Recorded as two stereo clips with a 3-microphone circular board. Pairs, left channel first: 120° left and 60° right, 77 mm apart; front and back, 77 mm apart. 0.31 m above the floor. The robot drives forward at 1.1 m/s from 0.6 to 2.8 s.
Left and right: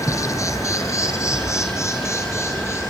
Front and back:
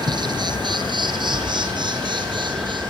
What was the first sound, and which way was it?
An insect, 165° left.